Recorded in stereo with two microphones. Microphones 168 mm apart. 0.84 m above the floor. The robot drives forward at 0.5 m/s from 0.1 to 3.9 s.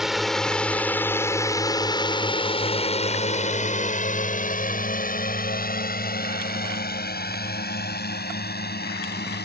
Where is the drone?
Centre (ahead or behind); by 9.5 s 75° left (ahead or behind).